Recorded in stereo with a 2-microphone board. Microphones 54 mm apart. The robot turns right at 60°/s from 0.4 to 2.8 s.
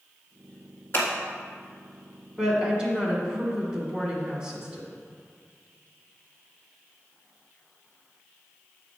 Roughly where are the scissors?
Left.